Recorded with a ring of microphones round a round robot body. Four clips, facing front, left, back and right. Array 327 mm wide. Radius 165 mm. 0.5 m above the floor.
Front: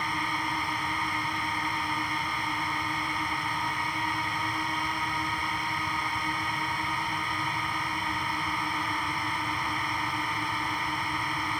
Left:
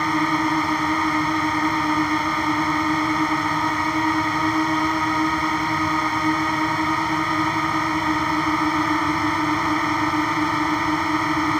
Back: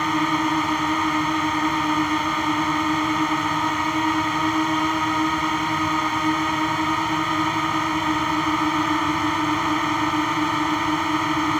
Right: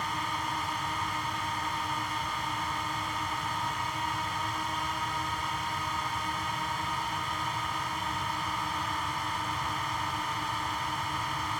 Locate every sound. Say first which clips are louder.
0.0 s a drone: left 12 dB, back 9 dB; 125° left